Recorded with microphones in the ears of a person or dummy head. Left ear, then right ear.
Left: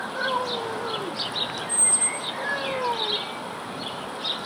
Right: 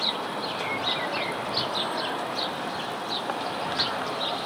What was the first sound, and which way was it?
A squeak, 70° left (ahead or behind).